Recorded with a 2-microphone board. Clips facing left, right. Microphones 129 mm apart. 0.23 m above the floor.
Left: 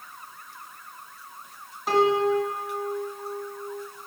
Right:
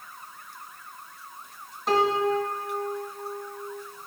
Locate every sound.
1.9 s a piano: 5° left (ahead or behind), 2 m